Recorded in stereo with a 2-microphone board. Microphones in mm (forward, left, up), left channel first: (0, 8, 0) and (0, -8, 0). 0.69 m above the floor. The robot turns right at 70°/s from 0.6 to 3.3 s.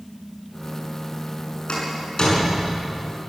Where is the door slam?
80° left, 7 m; by 2.8 s 5° left (ahead or behind), 7 m.